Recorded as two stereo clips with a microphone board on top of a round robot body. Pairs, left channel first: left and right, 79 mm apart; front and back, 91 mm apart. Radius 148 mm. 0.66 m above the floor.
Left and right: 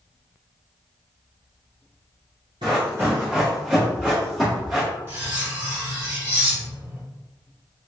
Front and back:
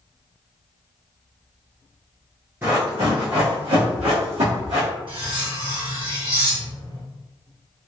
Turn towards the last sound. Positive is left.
turn(degrees=-155)